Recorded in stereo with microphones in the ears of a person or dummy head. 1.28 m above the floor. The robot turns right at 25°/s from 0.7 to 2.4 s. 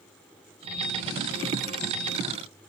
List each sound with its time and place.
Only background noise.